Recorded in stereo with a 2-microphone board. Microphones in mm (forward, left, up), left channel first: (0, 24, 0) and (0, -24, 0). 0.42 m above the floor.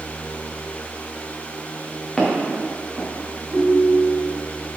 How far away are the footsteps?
About 3 m.